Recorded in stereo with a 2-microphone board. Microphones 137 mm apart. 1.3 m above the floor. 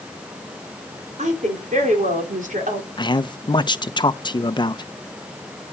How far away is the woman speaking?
About 5 m.